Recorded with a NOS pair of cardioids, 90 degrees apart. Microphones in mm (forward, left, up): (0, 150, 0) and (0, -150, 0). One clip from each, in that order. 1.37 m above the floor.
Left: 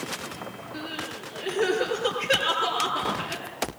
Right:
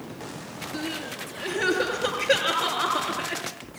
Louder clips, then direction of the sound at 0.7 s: Right 2 dB; 50° right.